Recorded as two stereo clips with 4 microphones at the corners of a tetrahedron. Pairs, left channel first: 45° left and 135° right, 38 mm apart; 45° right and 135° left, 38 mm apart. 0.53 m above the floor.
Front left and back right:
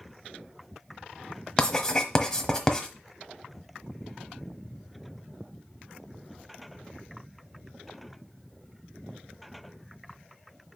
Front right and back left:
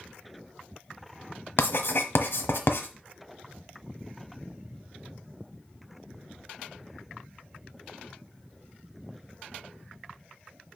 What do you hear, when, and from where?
1.6 s writing: 25° right, 1.2 m